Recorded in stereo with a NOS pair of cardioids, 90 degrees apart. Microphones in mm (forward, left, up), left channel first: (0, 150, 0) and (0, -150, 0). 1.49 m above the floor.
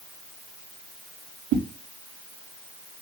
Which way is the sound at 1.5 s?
65° right.